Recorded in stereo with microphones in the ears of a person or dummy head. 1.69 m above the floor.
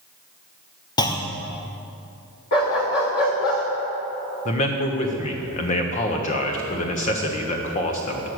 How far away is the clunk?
About 0.6 m.